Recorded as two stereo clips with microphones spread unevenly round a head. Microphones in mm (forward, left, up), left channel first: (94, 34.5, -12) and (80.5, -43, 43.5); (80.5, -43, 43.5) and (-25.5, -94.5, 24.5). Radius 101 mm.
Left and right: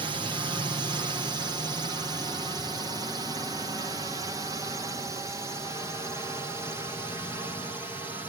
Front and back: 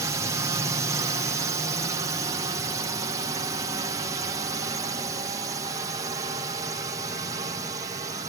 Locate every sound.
0.0 s a drone: 160° right; by 8.3 s 160° left